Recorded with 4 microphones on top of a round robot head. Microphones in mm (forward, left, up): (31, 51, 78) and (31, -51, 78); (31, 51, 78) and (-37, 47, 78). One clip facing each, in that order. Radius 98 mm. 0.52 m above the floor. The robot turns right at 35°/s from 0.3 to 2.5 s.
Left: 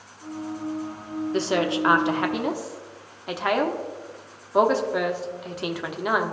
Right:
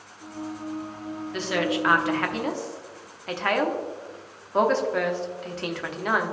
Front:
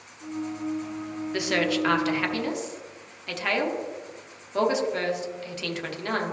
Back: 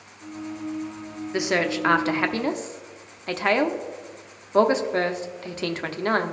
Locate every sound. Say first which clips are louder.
1.3 s a woman speaking: left 2 dB, back 2 dB; 120° left, 0.8 m; by 6.3 s 160° left, 0.8 m